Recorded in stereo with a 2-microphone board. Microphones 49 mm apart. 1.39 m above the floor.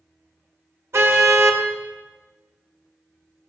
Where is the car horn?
60° right (ahead or behind), 2.5 m.